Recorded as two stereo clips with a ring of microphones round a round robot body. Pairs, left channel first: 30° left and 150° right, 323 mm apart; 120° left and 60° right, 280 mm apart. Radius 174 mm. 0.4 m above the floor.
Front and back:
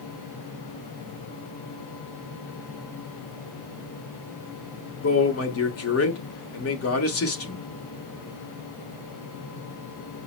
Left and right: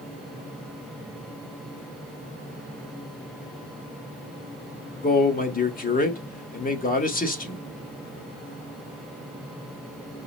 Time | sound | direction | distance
5.0 | a man speaking | 65° left | 1.3 m